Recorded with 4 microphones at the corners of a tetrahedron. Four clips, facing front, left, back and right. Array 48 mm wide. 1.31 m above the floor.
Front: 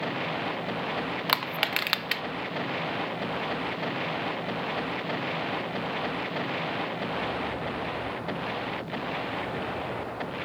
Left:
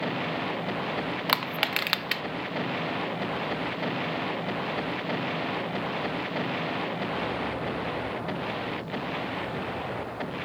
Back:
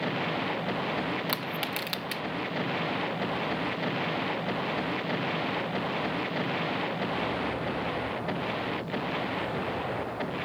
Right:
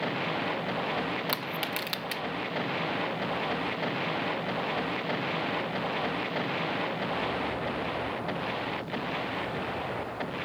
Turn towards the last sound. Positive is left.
turn(degrees=45)